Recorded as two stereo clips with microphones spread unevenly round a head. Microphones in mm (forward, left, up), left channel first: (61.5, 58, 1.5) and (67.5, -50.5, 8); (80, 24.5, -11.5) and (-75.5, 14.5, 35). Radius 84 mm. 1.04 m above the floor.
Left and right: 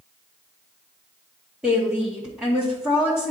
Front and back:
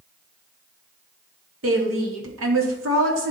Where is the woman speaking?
170° right, 1.8 m.